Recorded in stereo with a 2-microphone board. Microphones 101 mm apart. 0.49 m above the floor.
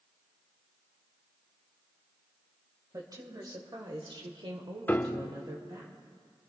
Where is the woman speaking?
35° right (ahead or behind), 2 m; by 5.9 s 40° right (ahead or behind), 1.8 m.